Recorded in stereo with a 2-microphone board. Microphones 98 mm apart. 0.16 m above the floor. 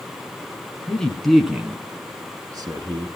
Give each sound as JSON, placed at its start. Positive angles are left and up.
{"t": 0.9, "sound": "a man speaking", "side_deg": 15, "distance_m": 2.0}